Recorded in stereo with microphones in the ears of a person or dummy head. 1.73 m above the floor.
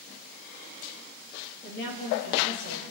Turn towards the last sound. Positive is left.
turn(degrees=65)  # may be behind; listen again after turning